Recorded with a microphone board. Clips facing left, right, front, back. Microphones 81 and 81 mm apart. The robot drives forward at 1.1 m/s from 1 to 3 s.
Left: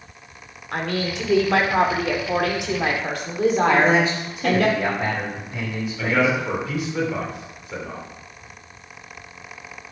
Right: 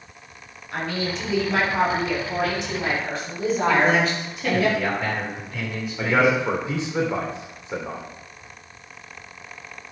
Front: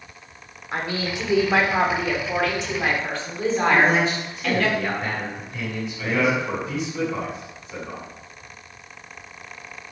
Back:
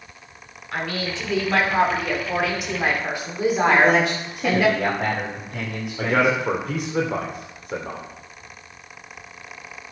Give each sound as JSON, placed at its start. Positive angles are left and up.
{"t": 0.7, "sound": "a woman speaking", "azimuth_deg": 65, "distance_m": 3.5}
{"t": 3.7, "sound": "a man speaking", "azimuth_deg": 160, "distance_m": 5.0}
{"t": 6.0, "sound": "a man speaking", "azimuth_deg": -155, "distance_m": 3.0}